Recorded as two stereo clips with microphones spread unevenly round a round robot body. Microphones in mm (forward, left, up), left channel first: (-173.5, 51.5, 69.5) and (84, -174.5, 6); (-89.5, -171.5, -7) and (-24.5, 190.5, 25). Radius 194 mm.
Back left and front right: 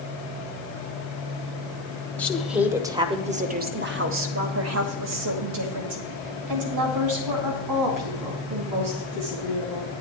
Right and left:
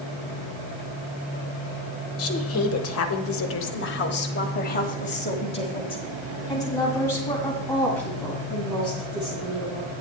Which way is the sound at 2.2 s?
125° right.